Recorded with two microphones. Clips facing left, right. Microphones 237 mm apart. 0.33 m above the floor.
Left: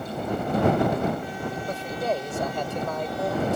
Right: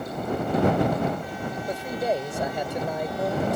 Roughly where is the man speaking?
Centre.